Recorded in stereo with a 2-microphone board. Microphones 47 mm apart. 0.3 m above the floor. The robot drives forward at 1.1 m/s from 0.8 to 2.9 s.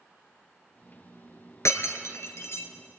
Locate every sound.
1.6 s breaking glass: 80° left, 2 m; by 2.7 s 60° left (ahead or behind), 2.5 m